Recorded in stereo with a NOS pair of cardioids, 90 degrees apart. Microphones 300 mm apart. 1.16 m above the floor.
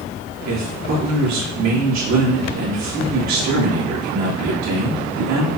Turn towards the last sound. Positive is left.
turn(degrees=-65)